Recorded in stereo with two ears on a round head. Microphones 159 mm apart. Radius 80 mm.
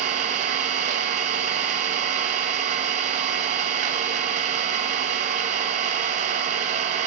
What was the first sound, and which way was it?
An engine running, 45° right (ahead or behind).